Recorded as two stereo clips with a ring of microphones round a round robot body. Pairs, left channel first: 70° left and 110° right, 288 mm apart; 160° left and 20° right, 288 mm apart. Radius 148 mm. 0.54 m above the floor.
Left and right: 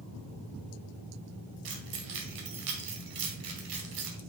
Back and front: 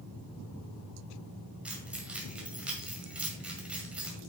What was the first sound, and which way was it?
Keys jangling, 110° right.